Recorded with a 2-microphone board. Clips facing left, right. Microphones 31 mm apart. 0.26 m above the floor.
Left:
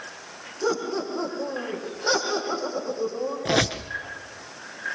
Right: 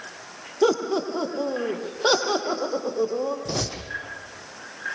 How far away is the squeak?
About 2.5 m.